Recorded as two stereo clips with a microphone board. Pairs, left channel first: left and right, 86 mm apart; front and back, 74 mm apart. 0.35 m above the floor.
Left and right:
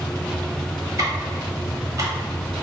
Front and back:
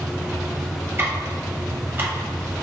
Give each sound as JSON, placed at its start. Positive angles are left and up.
{"t": 1.0, "sound": "ticking", "azimuth_deg": -130, "distance_m": 1.0}